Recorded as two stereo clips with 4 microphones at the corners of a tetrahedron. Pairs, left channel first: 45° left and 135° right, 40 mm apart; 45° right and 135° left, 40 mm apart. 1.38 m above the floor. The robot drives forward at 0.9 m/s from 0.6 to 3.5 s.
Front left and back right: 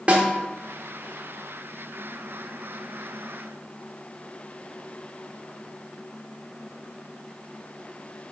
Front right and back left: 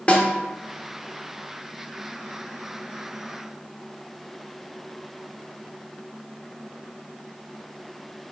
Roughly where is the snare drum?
Right.